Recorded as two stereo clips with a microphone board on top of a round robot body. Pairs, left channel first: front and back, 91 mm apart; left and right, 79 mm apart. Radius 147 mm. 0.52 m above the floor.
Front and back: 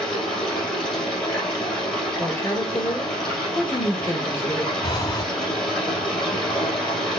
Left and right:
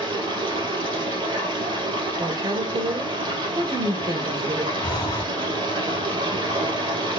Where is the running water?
85° right, 2.5 m.